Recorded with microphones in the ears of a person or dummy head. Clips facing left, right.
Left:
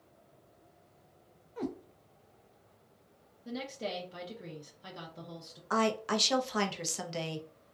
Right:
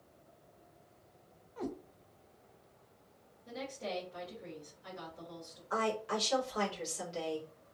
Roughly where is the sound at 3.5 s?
Left.